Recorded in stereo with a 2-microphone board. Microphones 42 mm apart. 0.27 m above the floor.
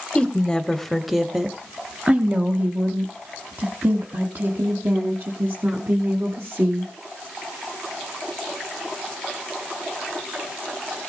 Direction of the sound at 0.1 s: 25° left (ahead or behind).